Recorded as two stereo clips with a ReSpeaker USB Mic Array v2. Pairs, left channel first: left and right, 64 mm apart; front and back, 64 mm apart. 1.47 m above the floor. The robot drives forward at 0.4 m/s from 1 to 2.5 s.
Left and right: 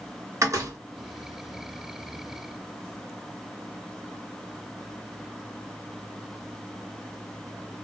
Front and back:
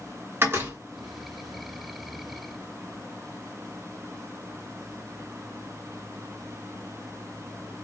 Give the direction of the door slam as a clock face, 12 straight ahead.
4 o'clock.